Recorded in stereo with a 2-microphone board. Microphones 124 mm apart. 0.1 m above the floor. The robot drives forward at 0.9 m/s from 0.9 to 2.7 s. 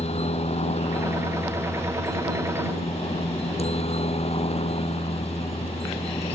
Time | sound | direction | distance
0.0 | a helicopter | 65° left (ahead or behind) | ?